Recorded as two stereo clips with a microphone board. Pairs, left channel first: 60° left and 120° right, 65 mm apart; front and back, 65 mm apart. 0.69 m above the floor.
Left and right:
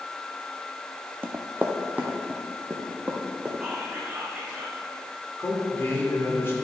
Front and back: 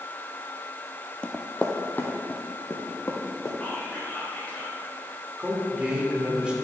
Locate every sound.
1.2 s running footsteps: 70° right, 0.9 m; by 3.5 s 50° right, 2.5 m
3.6 s whispering: 50° right, 1.5 m
5.4 s a man speaking: 105° left, 2 m